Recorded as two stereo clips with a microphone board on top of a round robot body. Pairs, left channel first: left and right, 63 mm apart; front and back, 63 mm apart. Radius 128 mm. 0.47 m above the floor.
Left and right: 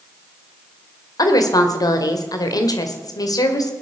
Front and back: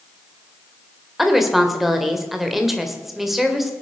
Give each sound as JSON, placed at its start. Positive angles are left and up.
{"t": 1.2, "sound": "a woman speaking", "azimuth_deg": 95, "distance_m": 2.0}